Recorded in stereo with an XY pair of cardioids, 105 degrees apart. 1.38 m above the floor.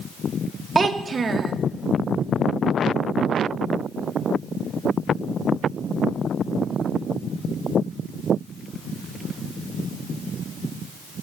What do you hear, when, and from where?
0.8 s a child speaking: 35° right, 0.8 m